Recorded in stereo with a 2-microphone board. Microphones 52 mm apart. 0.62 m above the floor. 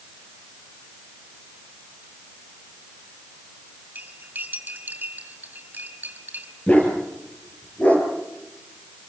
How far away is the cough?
I don't hear a cough.